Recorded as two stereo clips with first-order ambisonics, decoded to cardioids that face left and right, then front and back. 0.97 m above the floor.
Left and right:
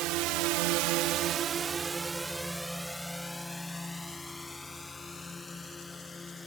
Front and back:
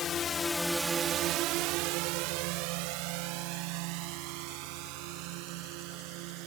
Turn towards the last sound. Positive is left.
turn(degrees=165)